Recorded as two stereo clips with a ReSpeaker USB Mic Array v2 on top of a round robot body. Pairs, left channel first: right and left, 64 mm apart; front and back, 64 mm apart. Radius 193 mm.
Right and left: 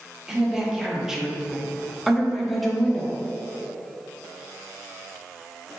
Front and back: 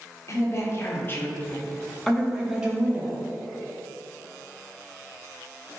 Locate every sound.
0.3 s a woman speaking: 15° left, 1.5 m; by 3.2 s 170° right, 1.2 m